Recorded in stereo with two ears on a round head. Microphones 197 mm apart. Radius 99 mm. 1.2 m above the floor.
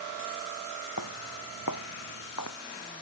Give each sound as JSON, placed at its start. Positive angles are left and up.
{"t": 1.0, "sound": "footsteps", "side_deg": 85}